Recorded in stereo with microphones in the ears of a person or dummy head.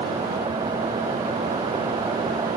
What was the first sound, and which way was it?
Only background noise.